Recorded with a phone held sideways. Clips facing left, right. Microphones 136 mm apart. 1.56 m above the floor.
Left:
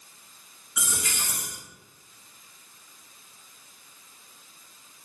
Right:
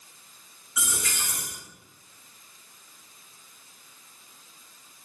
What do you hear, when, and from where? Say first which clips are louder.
0.8 s a dropped coin: even; 20° left (ahead or behind), 0.9 m